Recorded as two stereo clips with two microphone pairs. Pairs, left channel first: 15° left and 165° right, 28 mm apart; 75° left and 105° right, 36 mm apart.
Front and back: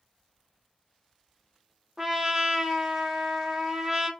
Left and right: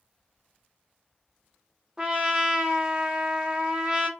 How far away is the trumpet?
About 0.6 m.